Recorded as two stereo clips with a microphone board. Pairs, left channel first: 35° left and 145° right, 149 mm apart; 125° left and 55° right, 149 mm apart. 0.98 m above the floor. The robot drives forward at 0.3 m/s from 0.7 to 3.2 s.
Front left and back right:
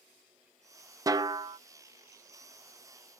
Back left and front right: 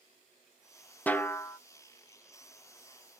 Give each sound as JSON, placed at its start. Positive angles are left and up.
{"t": 1.1, "sound": "a snare drum", "azimuth_deg": -170, "distance_m": 0.5}